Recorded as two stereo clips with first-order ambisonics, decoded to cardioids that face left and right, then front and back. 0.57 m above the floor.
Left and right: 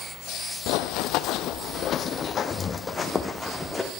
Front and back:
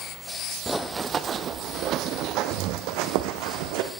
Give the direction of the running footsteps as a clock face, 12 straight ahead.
9 o'clock.